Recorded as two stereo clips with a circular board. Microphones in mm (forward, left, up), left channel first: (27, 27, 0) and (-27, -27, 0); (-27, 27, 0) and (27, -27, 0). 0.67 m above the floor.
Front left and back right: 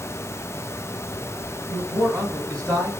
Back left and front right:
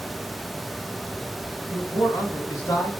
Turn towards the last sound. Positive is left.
turn(degrees=115)